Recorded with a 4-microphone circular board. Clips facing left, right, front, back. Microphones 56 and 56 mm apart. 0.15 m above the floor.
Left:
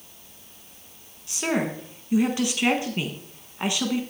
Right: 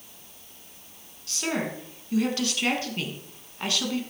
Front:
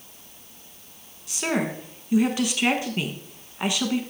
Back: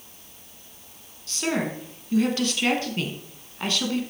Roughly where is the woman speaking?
Ahead left.